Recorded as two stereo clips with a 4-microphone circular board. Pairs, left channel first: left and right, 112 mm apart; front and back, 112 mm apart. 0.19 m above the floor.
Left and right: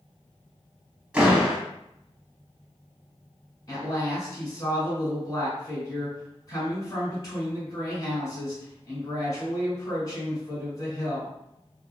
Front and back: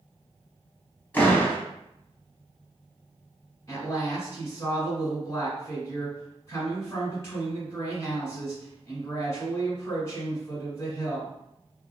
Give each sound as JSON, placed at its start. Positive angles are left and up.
{"t": 1.1, "sound": "a door slam", "azimuth_deg": -30, "distance_m": 0.7}
{"t": 3.7, "sound": "a woman speaking", "azimuth_deg": 50, "distance_m": 1.5}